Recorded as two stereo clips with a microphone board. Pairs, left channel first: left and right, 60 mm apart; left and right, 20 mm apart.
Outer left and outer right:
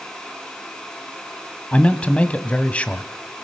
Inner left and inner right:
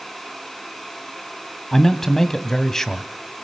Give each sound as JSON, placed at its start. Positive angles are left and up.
{"t": 1.7, "sound": "a man speaking", "side_deg": 20, "distance_m": 1.5}